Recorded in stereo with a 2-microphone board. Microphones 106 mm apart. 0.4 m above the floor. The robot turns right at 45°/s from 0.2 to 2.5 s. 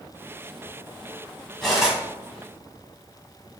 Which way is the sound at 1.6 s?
5° left (ahead or behind).